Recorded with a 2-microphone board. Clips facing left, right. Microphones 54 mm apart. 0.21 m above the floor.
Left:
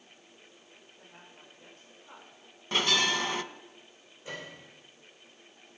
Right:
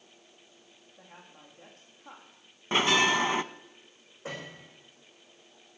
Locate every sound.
1.0 s a woman speaking: 80° right, 8 m
2.7 s a bell: 30° right (ahead or behind), 0.5 m
4.2 s a piano: 80° right, 9.5 m